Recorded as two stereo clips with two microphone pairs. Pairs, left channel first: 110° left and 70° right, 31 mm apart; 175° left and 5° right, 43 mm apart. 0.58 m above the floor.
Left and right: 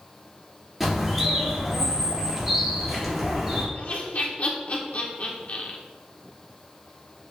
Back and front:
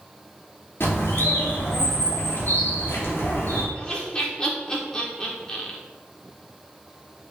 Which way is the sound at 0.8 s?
150° right.